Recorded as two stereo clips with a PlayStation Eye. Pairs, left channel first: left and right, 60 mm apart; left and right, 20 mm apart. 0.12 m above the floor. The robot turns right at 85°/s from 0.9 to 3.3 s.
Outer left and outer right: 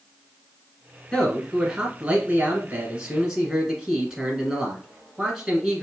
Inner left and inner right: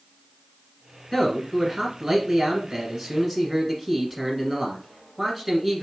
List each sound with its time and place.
1.1 s a man speaking: 10° left (ahead or behind), 1.7 m; by 5.8 s 10° right (ahead or behind), 1.7 m